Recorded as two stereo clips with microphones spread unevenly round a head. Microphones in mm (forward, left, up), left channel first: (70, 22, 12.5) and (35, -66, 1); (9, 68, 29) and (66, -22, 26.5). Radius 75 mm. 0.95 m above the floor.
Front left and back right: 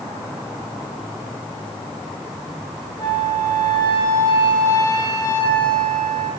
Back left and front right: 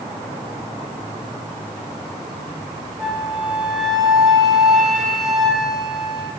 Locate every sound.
3.0 s a flute: 30° left, 1.6 m